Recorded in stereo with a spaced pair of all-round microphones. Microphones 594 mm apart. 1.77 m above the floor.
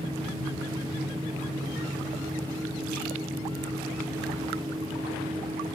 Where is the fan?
5° right (ahead or behind).